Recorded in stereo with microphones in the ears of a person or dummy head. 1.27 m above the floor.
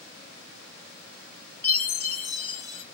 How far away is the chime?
About 1.2 m.